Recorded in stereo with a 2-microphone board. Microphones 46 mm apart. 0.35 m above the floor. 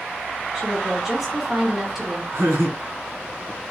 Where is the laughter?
70° right (ahead or behind), 3 m.